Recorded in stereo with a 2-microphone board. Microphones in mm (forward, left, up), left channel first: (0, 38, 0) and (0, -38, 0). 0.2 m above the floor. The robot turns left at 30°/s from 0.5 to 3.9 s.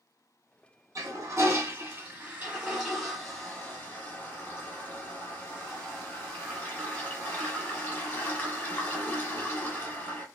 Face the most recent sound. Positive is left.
turn(degrees=150)